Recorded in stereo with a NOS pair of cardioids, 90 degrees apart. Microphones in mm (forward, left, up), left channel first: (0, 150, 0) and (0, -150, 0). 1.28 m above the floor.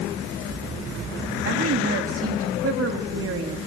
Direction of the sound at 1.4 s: 50° right.